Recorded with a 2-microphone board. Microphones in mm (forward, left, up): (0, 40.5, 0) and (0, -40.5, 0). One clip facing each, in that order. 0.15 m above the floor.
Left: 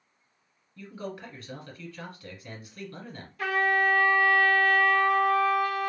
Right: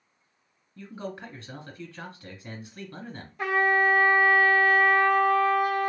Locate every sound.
0.8 s a man speaking: 25° right (ahead or behind), 1.2 m
3.4 s a trumpet: 20° right (ahead or behind), 0.6 m